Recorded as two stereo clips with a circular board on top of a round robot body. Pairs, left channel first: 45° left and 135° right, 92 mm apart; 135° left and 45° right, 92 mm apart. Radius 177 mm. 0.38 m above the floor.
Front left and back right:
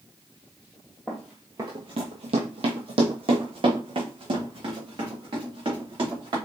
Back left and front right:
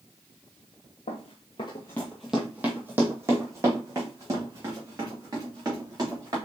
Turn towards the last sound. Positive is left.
turn(degrees=-95)